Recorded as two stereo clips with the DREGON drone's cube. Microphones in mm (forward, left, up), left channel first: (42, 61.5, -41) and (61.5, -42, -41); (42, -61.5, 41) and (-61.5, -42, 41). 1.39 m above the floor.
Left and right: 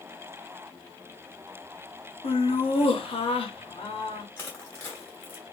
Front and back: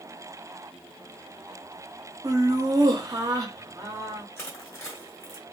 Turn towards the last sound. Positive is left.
turn(degrees=40)